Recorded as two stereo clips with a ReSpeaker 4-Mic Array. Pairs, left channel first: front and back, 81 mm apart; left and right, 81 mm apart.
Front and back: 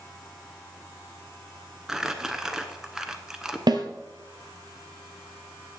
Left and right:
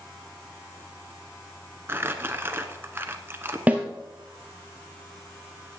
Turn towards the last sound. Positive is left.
turn(degrees=-160)